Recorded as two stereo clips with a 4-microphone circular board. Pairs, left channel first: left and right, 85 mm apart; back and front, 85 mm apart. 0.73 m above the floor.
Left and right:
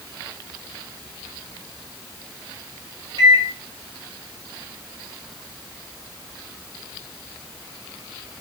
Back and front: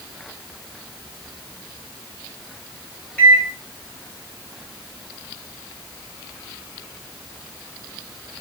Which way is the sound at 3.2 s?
110° right.